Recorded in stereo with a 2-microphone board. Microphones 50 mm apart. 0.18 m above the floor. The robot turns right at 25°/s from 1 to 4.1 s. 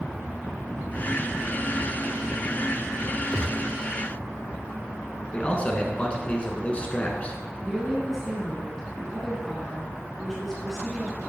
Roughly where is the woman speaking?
Centre.